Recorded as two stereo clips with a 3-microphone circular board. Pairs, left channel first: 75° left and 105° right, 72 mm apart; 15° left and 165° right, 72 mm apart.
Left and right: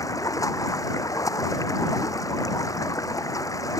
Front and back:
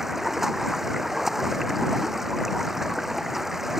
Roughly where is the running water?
Left.